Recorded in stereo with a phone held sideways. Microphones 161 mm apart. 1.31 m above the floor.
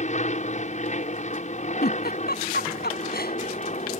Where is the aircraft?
50° left (ahead or behind).